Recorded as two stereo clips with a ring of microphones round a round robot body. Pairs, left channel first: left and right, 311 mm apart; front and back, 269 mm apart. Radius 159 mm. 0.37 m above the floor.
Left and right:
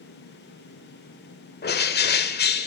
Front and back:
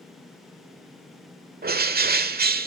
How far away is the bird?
About 1.3 m.